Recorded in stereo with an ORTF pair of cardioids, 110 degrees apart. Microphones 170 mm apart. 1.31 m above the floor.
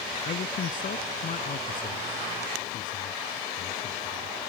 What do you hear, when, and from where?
0.2 s a man speaking: 50° left